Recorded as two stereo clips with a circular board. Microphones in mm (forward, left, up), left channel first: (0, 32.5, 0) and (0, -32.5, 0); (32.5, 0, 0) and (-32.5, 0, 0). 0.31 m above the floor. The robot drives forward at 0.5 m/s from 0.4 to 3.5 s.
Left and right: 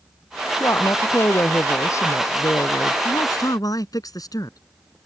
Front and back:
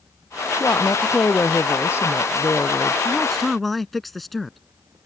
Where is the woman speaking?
45° left; by 3.0 s 50° left.